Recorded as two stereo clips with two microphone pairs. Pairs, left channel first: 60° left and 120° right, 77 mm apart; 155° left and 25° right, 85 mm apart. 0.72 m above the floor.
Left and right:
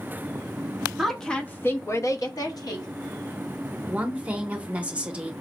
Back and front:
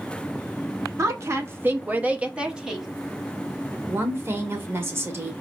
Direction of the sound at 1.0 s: 35° right.